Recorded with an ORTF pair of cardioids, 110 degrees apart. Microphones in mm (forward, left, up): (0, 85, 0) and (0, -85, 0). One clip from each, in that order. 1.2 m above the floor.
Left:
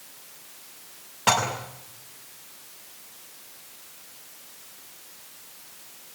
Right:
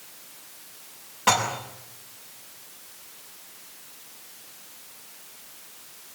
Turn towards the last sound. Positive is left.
turn(degrees=15)